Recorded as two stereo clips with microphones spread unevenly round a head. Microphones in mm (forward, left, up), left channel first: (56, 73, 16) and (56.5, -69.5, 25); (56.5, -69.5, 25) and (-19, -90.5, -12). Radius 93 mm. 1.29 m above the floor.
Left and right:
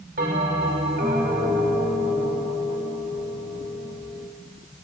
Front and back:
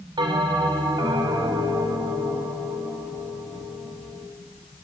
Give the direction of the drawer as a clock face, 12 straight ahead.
I don't hear a drawer.